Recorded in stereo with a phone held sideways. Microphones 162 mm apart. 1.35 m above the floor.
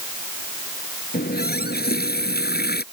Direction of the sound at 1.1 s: 75° left (ahead or behind).